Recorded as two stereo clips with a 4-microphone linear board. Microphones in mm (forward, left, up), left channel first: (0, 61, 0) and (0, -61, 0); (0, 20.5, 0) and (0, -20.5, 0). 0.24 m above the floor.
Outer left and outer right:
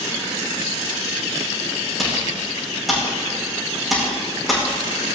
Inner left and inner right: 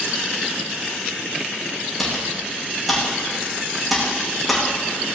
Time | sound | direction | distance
2.0 | typing on a keyboard | centre (ahead or behind) | 6 m